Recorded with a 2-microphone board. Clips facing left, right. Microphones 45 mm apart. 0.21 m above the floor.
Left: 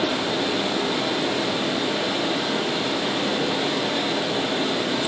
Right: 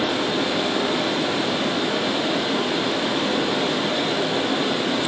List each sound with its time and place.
0.0 s running water: 25° right (ahead or behind), 1.7 m